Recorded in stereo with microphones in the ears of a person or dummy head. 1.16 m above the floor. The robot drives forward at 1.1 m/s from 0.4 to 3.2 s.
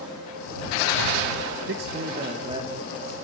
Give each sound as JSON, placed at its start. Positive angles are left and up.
{"t": 1.7, "sound": "a man speaking", "side_deg": -55, "distance_m": 0.7}